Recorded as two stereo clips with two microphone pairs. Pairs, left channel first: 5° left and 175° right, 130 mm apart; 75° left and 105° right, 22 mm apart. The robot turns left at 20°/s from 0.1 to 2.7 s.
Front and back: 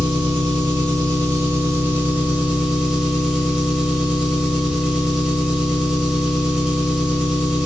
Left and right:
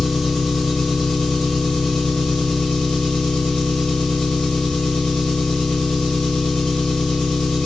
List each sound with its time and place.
0.0 s an engine running: 155° left, 1.1 m; by 7.7 s 105° left, 1.1 m